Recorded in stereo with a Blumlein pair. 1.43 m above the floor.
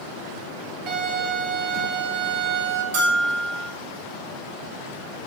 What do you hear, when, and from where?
0.9 s a violin: 35° right, 3 m
2.9 s a bell: 50° right, 3 m